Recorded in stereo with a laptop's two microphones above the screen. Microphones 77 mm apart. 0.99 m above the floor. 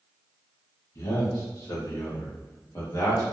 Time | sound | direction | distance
0.9 | a man speaking | 50° left (ahead or behind) | 1.4 m